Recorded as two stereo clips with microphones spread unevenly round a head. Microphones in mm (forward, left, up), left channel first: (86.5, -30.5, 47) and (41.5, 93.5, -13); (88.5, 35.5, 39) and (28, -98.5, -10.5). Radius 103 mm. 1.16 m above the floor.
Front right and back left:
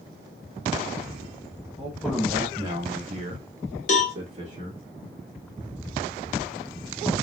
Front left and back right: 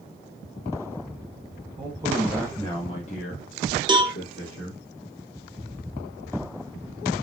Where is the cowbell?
50° right, 0.9 m.